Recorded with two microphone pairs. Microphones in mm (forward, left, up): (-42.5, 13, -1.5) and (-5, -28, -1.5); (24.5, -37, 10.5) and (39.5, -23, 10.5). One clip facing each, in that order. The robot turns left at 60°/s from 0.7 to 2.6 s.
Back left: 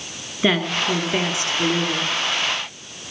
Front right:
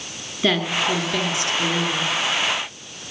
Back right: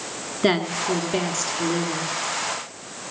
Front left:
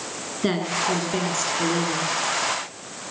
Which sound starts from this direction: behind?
A woman speaking, at 0.4 s.